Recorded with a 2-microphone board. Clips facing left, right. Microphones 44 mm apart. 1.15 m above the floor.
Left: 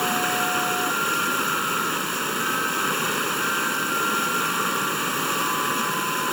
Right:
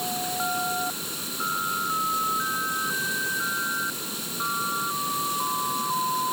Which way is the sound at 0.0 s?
60° left (ahead or behind).